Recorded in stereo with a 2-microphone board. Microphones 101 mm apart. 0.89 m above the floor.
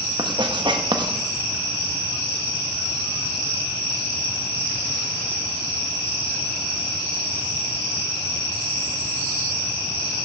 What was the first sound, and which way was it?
Writing, 50° right (ahead or behind).